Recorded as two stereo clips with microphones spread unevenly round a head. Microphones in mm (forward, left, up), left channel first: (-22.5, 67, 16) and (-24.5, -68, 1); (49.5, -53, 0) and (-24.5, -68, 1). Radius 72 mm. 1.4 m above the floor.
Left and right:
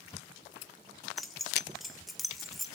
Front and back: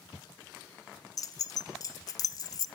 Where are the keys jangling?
5° left, 0.6 m.